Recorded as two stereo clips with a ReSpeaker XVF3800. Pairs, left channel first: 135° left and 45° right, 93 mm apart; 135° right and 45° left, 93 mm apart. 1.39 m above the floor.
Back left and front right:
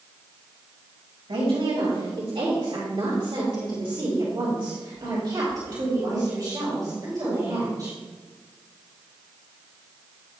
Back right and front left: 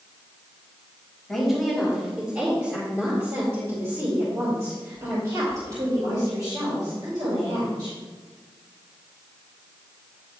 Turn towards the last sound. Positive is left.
turn(degrees=10)